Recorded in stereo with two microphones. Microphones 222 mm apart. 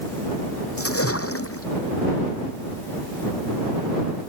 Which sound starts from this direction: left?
A splash, at 0.8 s.